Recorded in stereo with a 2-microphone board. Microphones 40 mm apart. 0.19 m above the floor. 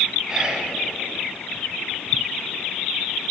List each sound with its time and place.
0.3 s whispering: 20° right (ahead or behind), 1.9 m